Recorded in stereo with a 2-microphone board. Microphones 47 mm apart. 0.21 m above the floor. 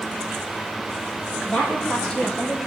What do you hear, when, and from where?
1.4 s a woman speaking: 15° left (ahead or behind), 7 m; by 2.6 s 20° left (ahead or behind), 6 m